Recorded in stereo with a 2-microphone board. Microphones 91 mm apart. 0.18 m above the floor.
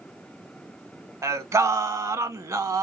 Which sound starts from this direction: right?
Singing, at 1.2 s.